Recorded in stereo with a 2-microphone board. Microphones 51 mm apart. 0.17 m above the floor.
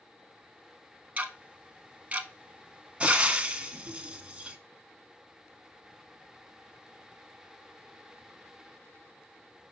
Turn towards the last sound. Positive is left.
turn(degrees=-20)  # may be behind; listen again after turning